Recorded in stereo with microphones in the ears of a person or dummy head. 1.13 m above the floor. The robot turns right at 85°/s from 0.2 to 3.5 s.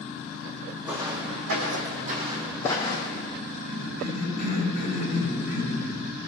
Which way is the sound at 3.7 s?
45° left (ahead or behind).